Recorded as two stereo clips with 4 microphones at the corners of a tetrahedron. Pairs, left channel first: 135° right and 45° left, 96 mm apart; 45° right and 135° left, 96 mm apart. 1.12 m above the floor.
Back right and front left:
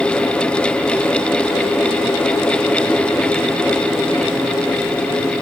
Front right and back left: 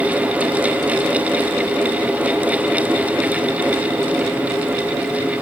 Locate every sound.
Only background noise.